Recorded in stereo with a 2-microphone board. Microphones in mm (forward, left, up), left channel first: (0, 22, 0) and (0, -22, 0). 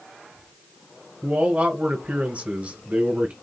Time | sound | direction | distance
1.2 | a man speaking | 30° right (ahead or behind) | 1.4 m